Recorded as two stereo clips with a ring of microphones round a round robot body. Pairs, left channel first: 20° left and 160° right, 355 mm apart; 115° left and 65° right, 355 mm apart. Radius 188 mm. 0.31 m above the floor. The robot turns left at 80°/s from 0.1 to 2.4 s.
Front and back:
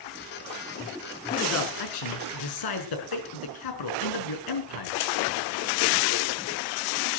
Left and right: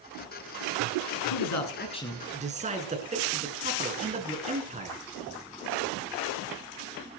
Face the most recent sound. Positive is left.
turn(degrees=5)